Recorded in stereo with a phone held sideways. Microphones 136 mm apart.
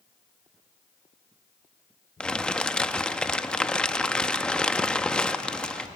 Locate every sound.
2.2 s crumpling: 5° left (ahead or behind), 0.6 m